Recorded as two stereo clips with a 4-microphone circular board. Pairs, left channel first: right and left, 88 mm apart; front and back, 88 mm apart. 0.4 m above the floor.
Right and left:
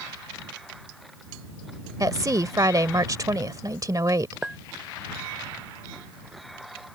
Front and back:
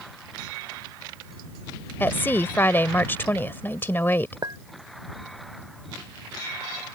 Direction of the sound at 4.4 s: 170° left.